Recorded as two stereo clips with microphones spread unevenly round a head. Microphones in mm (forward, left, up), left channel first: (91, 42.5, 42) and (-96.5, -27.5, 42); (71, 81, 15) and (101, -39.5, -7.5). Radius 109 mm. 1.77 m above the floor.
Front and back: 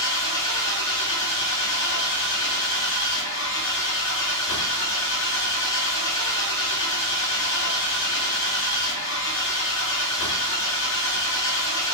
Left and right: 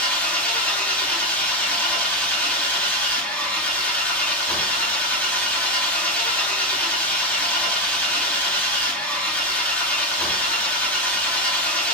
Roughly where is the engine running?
Ahead left.